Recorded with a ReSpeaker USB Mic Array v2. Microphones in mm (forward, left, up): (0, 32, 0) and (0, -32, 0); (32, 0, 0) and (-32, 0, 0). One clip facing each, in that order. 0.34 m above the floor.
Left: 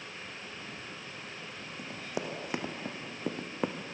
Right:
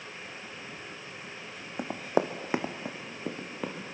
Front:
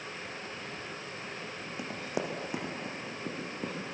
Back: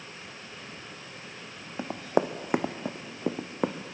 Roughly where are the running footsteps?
Behind right.